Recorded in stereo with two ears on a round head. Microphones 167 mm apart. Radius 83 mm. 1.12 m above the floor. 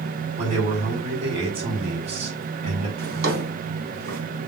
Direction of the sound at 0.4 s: 35° right (ahead or behind).